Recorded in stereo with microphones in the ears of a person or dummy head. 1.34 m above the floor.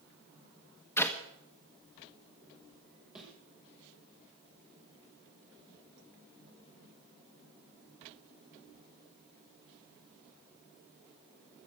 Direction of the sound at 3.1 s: 5° right (ahead or behind).